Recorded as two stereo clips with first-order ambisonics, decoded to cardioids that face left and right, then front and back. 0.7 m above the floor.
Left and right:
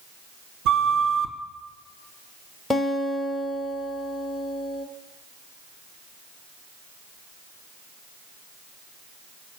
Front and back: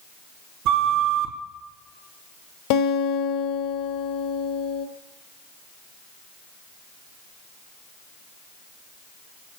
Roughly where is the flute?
Behind right.